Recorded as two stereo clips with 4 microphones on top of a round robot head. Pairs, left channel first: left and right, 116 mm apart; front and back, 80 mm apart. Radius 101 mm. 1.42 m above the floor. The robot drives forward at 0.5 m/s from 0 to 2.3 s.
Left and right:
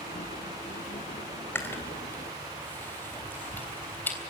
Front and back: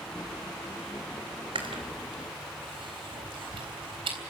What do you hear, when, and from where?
1.6 s chewing: 160° left, 3.5 m; by 4.2 s 165° left, 3.5 m